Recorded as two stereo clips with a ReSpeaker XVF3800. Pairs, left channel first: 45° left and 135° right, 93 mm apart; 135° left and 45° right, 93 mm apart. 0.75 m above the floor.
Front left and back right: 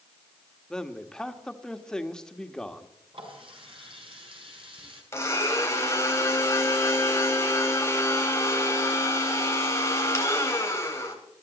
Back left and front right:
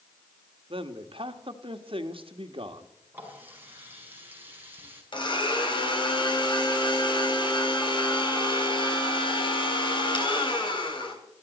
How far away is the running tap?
About 4.5 m.